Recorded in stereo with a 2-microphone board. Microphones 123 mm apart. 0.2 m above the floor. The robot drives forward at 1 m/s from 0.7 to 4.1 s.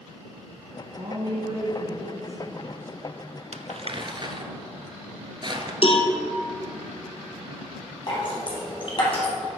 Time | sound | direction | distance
1.0 | a woman speaking | 40° right (ahead or behind) | 1.6 m
3.5 | crumpling | 70° right (ahead or behind) | 0.7 m
5.8 | a cowbell | 50° left (ahead or behind) | 1.1 m
8.1 | dripping | 45° left (ahead or behind) | 3.5 m